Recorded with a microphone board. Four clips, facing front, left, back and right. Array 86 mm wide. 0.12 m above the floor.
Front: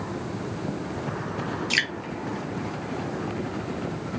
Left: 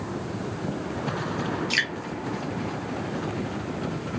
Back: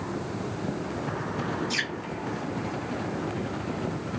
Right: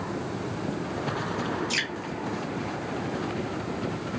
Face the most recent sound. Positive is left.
turn(degrees=15)